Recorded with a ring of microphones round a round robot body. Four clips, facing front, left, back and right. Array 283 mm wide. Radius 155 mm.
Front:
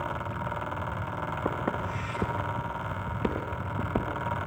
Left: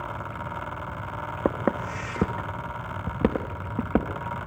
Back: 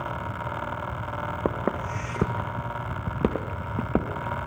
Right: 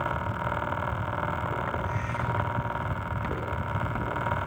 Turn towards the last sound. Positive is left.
turn(degrees=135)